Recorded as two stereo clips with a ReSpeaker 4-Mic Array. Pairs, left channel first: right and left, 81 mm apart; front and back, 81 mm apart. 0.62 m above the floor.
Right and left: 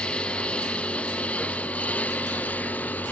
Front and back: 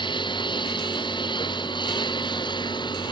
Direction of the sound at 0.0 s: 15° right.